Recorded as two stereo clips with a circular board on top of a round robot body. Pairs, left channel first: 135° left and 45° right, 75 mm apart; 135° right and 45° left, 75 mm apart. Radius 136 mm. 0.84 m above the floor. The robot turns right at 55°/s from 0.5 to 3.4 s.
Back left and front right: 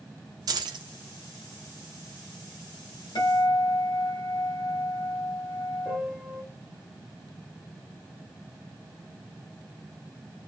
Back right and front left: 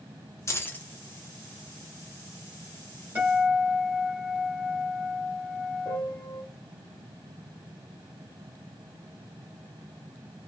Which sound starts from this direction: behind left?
A guitar, at 3.1 s.